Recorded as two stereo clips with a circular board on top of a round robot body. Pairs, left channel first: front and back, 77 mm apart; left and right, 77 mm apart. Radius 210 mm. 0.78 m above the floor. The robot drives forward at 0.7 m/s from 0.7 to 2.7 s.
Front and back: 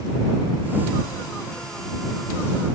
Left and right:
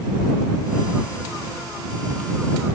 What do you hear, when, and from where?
Only background noise.